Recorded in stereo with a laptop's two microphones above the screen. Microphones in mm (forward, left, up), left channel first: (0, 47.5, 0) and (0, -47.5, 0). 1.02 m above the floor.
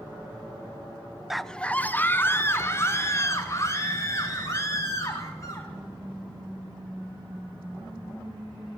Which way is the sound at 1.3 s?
5° right (ahead or behind).